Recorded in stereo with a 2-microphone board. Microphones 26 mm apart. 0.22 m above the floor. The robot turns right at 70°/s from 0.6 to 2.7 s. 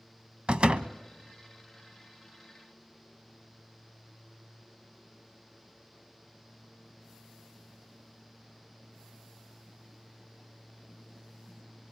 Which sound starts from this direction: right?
A door slam, at 0.5 s.